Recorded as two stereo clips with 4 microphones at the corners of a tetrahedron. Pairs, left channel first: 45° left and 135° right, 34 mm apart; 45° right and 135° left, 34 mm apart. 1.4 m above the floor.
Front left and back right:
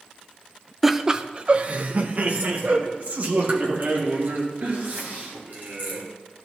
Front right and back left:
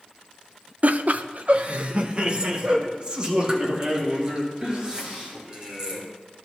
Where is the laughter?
140° left, 0.5 m; by 6.0 s 160° right, 4 m.